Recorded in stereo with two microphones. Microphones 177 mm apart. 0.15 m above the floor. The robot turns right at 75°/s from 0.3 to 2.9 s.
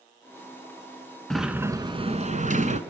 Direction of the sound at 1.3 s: 175° left.